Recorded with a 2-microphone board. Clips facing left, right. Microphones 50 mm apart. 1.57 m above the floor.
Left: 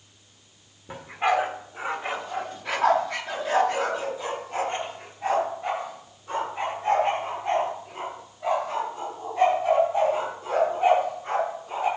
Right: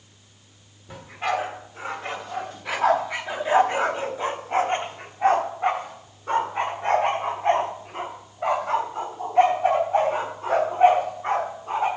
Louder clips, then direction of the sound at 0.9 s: Left 3 dB; 25° left (ahead or behind).